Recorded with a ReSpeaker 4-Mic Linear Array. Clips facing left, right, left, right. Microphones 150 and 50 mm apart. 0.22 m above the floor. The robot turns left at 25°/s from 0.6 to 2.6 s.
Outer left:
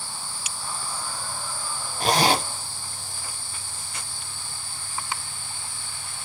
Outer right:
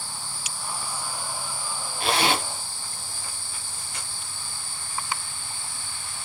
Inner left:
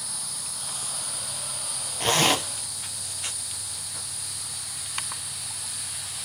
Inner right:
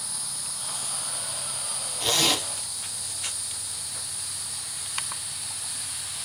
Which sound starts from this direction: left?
A zipper, at 2.0 s.